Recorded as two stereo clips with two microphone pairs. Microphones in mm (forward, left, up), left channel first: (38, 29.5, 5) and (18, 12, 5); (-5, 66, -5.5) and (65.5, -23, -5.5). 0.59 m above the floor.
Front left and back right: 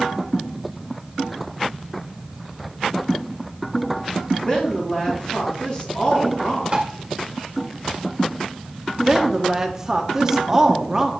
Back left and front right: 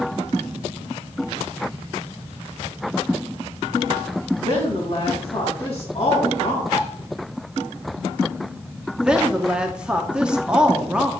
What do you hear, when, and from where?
4.4 s a woman speaking: 95° left, 3 m
6.7 s tapping: 170° left, 2 m
9.0 s a woman speaking: 120° right, 1.0 m